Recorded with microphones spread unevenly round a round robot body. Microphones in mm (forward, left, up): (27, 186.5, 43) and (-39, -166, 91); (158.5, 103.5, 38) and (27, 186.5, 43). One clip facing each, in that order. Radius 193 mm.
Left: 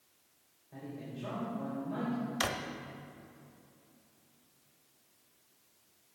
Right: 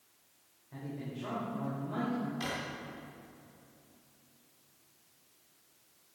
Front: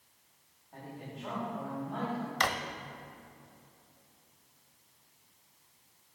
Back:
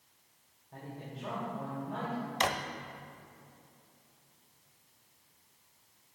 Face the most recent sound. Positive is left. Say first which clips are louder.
# left 1 dB, back 2 dB
turn(degrees=85)